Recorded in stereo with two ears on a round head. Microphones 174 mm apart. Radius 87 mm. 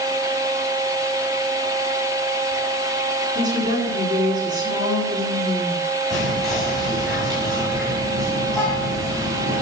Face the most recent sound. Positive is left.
turn(degrees=0)  # may be behind; listen again after turning